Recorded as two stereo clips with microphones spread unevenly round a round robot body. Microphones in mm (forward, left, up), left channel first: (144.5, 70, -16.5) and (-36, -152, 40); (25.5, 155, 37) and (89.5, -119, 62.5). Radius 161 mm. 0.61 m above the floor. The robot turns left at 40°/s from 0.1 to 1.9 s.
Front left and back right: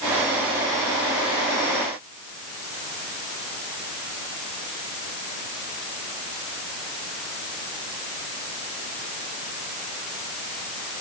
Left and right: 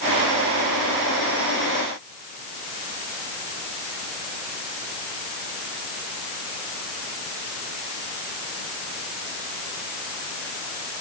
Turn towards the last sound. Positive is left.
No sound to turn to.